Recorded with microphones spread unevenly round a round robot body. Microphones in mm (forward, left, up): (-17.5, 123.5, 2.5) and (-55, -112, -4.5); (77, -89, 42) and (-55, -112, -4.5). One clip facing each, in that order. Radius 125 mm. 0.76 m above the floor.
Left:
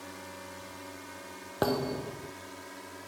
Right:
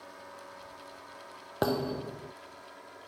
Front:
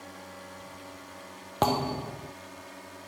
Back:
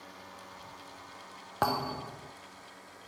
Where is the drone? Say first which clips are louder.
Left 4 dB, front 5 dB; 65° left; by 3.1 s 50° left.